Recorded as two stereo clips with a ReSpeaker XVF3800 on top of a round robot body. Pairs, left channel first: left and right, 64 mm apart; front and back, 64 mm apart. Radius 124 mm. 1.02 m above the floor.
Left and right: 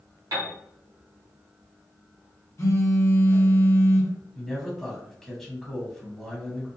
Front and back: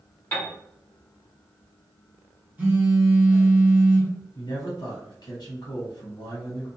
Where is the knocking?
I don't hear knocking.